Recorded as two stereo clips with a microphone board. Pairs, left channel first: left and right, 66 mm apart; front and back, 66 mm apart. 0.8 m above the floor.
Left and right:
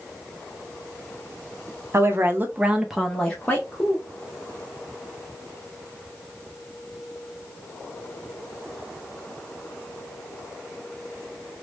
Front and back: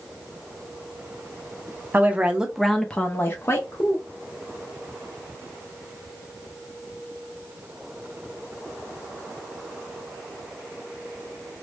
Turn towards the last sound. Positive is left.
turn(degrees=35)